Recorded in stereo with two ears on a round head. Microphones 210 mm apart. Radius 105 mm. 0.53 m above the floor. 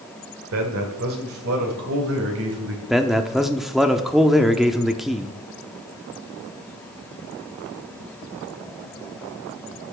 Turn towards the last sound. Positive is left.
turn(degrees=0)  # may be behind; listen again after turning